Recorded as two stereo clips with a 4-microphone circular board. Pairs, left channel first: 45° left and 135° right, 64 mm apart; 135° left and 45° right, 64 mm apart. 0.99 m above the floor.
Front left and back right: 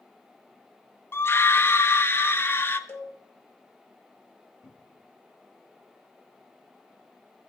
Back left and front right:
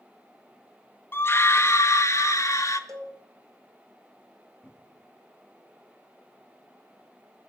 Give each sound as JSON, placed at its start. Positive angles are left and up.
{"t": 1.1, "sound": "a scream", "azimuth_deg": 90, "distance_m": 0.9}
{"t": 2.9, "sound": "a cowbell", "azimuth_deg": -10, "distance_m": 2.5}
{"t": 4.6, "sound": "a cupboard door", "azimuth_deg": 70, "distance_m": 1.2}